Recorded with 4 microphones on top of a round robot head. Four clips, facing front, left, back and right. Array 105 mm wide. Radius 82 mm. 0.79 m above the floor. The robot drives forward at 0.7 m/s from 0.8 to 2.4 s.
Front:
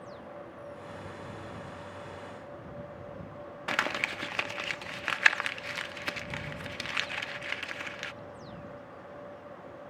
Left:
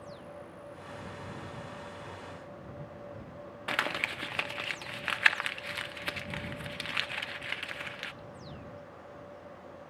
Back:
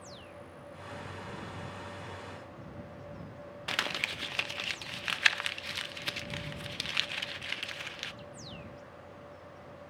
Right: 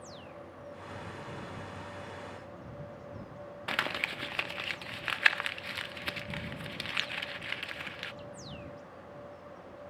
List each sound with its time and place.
3.7 s crumpling: 10° left, 0.7 m